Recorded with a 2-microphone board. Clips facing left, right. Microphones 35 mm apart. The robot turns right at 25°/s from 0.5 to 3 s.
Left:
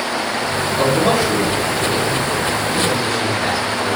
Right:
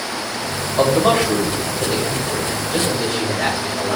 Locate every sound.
0.8 s a man speaking: 45° right (ahead or behind), 4.5 m; by 4.0 s 70° right (ahead or behind), 4.5 m